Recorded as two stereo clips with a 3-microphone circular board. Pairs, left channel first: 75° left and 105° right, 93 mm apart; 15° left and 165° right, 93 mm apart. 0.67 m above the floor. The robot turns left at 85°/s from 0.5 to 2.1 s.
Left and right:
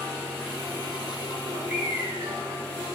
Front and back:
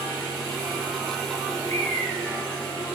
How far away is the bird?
About 1.5 m.